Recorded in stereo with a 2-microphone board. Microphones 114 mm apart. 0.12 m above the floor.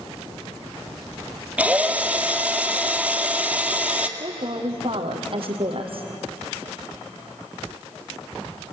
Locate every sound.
1.6 s a drill: 10° right (ahead or behind), 1.8 m
4.2 s a woman speaking: 55° right (ahead or behind), 3.5 m